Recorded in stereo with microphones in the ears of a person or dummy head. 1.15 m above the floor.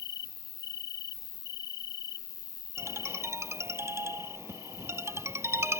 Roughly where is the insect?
Left.